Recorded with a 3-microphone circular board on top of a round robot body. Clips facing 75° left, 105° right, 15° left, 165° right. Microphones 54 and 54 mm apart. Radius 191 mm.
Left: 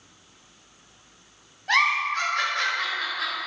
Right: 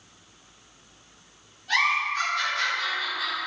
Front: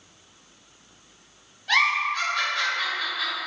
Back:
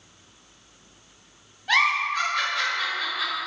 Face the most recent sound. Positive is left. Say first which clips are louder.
# left 2 dB, even
turn(degrees=120)